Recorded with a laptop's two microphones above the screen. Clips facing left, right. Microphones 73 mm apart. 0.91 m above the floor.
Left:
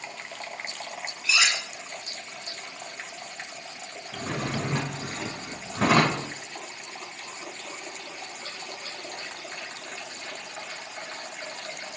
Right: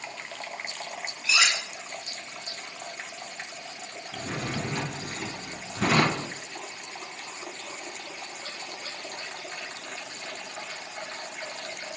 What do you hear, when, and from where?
1.2 s cutlery clinking: 15° right (ahead or behind), 1.1 m
4.1 s a drawer: 75° left (ahead or behind), 1.7 m